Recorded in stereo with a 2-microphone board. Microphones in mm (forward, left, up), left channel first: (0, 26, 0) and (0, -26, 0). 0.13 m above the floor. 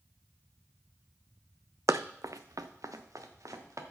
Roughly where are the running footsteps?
Right.